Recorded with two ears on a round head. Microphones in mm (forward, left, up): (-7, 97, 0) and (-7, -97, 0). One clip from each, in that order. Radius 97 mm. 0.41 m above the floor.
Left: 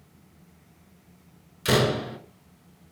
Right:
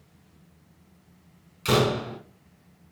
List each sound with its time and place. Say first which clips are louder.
1.6 s a door slam: even; 5° left (ahead or behind), 1.4 m